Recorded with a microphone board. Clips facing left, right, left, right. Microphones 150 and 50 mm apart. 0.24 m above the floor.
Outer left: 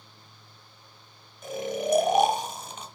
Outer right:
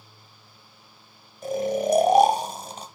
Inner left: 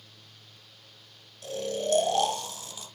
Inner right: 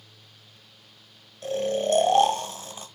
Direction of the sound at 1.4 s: 35° right (ahead or behind).